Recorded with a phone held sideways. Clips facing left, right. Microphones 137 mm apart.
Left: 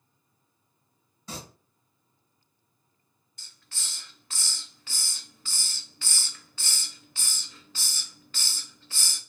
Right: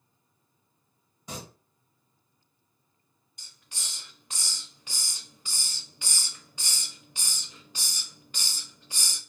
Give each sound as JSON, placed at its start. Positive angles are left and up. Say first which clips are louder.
{"t": 1.3, "sound": "singing", "louder": "even", "side_deg": -15, "distance_m": 1.3}
{"t": 3.4, "sound": "a hiss", "louder": "right 1 dB", "side_deg": -15, "distance_m": 0.5}